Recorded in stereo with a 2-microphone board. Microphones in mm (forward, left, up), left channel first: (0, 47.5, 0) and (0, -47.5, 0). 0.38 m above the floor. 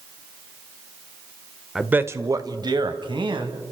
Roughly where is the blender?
I don't hear a blender.